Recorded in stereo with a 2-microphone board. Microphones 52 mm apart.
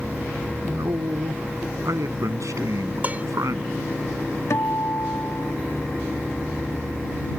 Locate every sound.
0.6 s a man speaking: 90° right
3.0 s dishes clattering: 30° right (ahead or behind)
4.5 s a guitar: 65° left (ahead or behind)